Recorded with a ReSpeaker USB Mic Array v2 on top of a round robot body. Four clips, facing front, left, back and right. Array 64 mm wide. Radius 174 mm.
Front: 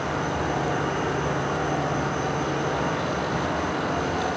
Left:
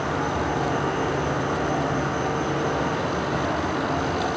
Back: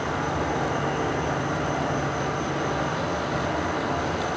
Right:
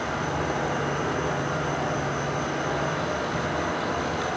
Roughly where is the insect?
Left.